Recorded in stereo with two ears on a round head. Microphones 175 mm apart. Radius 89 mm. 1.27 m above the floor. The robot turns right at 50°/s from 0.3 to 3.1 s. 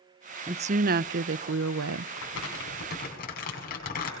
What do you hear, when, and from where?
0.5 s a woman speaking: 155° right, 0.5 m; by 2.1 s 75° right, 0.5 m
2.2 s crumpling: 85° left, 6 m; by 4.1 s 130° left, 6 m